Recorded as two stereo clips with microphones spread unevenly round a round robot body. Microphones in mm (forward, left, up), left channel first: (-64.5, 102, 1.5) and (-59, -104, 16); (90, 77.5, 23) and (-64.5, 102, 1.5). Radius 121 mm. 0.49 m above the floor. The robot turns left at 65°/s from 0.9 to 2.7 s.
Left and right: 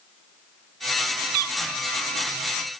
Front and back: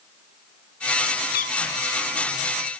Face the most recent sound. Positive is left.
turn(degrees=-150)